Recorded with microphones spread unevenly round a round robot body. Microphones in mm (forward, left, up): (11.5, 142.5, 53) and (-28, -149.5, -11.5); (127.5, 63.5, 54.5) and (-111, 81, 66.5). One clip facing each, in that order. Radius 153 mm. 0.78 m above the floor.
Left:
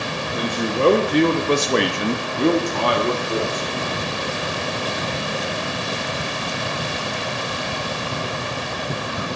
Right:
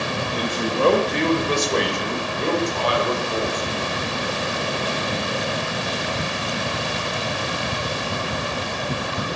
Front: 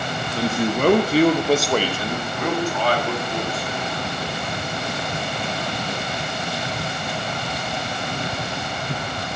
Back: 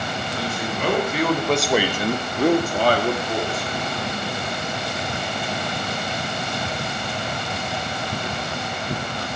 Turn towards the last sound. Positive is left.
turn(degrees=130)